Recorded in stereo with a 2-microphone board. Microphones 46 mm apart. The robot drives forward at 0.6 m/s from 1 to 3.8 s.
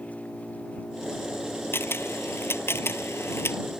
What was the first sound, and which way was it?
An engine running, 30° left (ahead or behind).